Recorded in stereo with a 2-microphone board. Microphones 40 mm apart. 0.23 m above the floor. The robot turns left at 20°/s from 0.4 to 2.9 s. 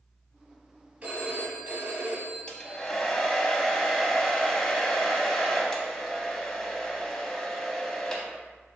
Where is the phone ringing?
45° right, 0.8 m; by 2.9 s 80° right, 0.8 m.